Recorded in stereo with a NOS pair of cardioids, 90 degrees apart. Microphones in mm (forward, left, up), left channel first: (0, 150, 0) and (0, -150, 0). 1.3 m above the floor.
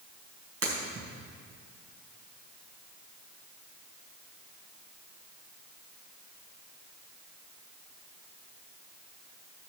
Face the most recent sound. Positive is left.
turn(degrees=-50)